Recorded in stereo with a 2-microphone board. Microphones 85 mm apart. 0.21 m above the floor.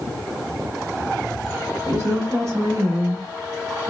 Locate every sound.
1.9 s a woman speaking: 40° right (ahead or behind), 3 m; by 3.9 s 45° right (ahead or behind), 1.8 m